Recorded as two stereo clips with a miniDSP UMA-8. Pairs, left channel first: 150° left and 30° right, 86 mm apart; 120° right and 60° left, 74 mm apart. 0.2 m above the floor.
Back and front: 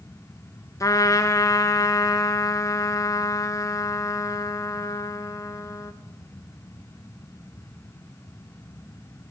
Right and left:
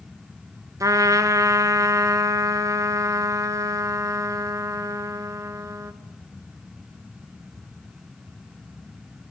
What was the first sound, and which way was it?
A trumpet, 100° left.